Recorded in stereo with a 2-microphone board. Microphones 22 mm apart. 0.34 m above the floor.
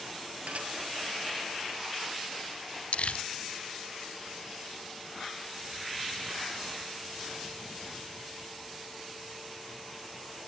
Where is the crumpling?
70° left (ahead or behind), 1.2 m.